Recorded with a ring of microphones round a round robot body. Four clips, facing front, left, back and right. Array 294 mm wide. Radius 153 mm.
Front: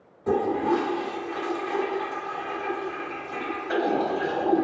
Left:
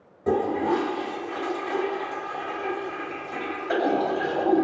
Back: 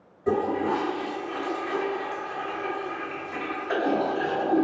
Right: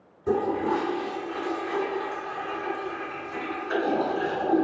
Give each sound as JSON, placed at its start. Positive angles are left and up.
{"t": 0.3, "sound": "a toilet flushing", "azimuth_deg": 105, "distance_m": 1.9}